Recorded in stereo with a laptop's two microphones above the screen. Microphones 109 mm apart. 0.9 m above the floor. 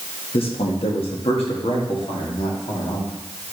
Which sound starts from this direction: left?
A man speaking, at 0.3 s.